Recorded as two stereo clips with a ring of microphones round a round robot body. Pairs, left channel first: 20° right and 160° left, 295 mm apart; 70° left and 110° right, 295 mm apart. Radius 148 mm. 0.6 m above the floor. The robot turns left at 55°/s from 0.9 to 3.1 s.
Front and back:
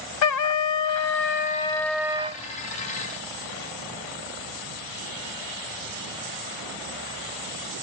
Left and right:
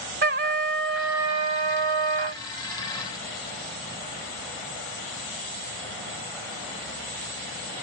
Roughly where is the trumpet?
Ahead right.